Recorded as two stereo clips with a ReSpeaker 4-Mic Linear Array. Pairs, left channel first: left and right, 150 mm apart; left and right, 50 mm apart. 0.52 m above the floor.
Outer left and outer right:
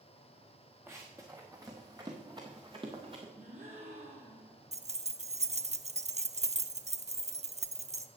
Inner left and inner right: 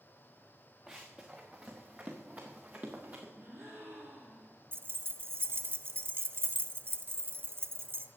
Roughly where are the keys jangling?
Right.